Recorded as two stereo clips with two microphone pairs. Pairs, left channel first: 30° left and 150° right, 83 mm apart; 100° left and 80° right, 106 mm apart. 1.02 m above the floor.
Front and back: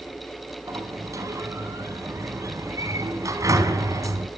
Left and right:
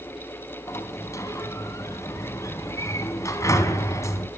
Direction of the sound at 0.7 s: 160° left.